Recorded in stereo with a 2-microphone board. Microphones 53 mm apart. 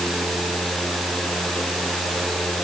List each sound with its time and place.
Only background noise.